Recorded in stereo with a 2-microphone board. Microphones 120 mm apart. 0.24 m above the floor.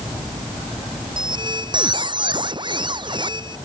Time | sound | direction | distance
1.2 | a squeak | 40° right (ahead or behind) | ?